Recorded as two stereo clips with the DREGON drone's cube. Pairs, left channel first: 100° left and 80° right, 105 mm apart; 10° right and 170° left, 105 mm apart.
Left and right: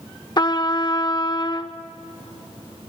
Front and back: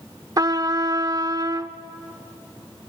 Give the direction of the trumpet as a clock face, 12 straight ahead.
8 o'clock.